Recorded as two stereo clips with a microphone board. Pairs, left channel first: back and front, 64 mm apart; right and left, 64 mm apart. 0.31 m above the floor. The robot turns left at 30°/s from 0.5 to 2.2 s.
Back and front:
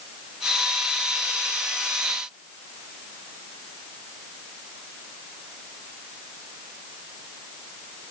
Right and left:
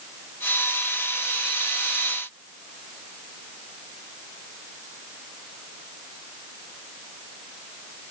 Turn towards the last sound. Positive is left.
No sound to turn to.